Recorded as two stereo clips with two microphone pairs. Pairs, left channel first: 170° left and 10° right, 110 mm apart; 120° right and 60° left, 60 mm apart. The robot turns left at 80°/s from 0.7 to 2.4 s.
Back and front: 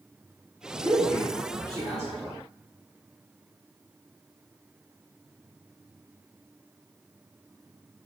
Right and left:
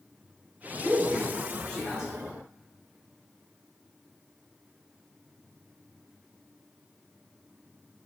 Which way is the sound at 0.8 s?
55° left.